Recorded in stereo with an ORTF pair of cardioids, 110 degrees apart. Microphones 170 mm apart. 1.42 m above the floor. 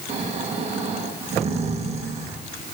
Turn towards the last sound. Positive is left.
turn(degrees=-40)